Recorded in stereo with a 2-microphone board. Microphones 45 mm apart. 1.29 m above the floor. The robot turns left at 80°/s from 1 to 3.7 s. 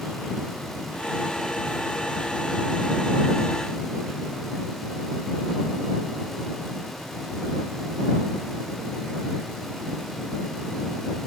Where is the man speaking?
No man speaking in this recording.